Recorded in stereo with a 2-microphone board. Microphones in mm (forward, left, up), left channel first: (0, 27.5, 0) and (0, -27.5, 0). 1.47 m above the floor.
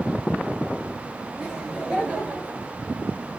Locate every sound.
1.4 s laughter: 10° right (ahead or behind), 2.5 m; by 2.7 s 30° right (ahead or behind), 2.5 m